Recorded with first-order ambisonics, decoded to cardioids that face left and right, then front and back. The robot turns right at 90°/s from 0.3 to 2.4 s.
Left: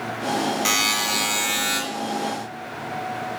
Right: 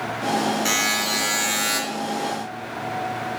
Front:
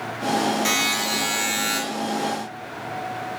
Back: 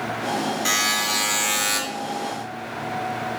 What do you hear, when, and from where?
0.7 s a buzzer: 70° left, 2 m; by 1.8 s 175° left, 2 m